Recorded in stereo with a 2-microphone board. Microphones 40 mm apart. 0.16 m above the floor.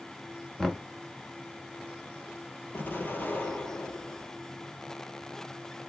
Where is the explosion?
55° left (ahead or behind), 1.6 m.